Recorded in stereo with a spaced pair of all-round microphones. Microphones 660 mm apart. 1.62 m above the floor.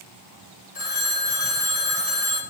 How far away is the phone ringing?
About 1.5 m.